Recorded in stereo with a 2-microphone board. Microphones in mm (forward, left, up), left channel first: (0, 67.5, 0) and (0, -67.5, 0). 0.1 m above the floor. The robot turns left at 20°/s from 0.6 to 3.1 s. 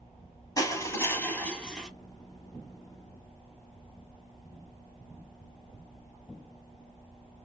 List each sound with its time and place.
0.6 s crushing: 25° left (ahead or behind), 1.0 m; by 1.9 s 5° left (ahead or behind), 1.0 m